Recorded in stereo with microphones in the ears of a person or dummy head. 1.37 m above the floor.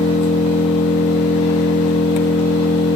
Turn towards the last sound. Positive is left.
turn(degrees=35)  # may be behind; listen again after turning